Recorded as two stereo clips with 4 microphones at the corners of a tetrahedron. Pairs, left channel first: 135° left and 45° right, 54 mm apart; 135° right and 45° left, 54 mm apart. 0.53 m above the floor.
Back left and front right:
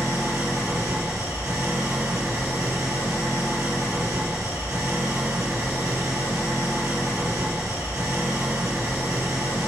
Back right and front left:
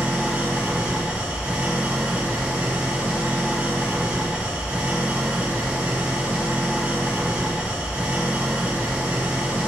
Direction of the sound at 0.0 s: 20° right.